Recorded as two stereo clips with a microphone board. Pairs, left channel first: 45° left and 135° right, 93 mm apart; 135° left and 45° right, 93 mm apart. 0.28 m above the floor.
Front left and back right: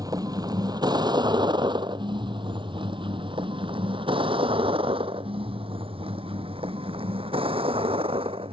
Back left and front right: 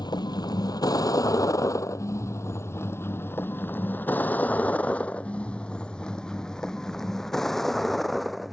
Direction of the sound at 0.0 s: 175° left.